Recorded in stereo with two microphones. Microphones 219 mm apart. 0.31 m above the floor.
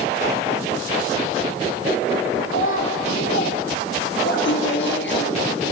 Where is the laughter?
55° left (ahead or behind), 4.5 m.